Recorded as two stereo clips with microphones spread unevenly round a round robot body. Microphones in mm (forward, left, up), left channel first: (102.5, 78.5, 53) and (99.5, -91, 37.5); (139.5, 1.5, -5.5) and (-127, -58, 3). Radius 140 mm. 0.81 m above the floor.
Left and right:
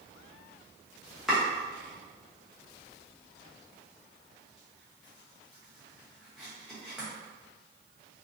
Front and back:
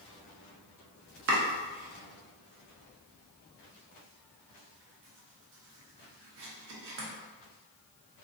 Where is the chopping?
170° right, 0.6 m.